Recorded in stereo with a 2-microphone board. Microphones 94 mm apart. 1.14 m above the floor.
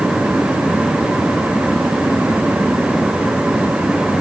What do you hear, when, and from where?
Only background noise.